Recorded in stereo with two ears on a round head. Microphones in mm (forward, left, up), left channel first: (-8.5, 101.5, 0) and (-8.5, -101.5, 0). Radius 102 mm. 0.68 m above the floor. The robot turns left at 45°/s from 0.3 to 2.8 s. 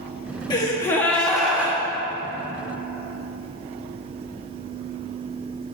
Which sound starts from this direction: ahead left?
A gasp, at 0.5 s.